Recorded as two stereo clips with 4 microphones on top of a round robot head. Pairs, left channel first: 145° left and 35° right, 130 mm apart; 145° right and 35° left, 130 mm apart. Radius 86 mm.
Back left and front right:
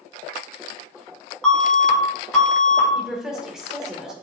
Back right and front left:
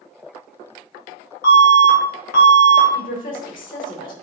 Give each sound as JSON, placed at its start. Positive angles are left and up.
{"t": 1.4, "sound": "an alarm", "azimuth_deg": -130, "distance_m": 3.5}
{"t": 3.0, "sound": "a woman speaking", "azimuth_deg": -120, "distance_m": 2.0}